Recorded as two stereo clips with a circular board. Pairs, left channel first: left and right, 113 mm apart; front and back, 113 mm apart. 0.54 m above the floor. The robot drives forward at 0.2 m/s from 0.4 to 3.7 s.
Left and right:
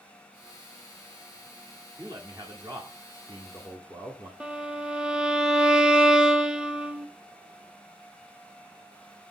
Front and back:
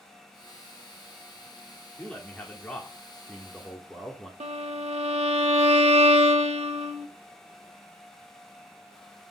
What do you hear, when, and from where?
2.0 s a man speaking: 70° right, 1.5 m; by 4.3 s 90° right, 1.5 m
4.4 s a violin: 170° right, 0.7 m